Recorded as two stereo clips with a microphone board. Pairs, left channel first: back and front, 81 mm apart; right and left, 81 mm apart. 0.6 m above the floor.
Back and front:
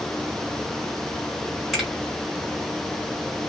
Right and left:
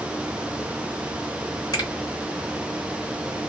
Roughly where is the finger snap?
Right.